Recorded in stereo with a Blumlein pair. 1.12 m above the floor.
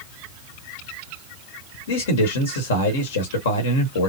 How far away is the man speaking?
About 1.0 m.